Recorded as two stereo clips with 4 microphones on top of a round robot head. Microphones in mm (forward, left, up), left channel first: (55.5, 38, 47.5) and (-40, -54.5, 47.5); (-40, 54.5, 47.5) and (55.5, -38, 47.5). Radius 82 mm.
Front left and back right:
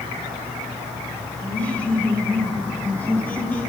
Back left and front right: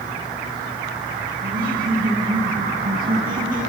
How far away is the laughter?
About 6.5 m.